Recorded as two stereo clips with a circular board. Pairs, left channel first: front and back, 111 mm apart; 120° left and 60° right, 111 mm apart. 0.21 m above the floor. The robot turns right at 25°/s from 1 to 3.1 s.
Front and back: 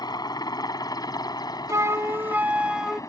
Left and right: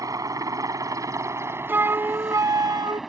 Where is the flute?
125° right; by 3.0 s 95° right.